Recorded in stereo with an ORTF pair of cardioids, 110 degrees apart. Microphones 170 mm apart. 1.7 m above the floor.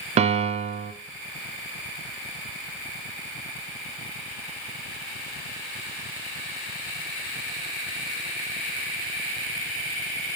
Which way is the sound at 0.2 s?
40° right.